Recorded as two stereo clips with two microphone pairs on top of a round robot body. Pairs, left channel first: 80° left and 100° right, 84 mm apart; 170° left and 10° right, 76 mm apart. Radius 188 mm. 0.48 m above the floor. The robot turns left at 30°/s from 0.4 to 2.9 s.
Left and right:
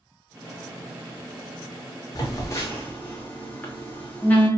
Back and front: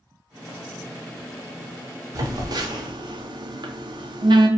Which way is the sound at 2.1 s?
30° left.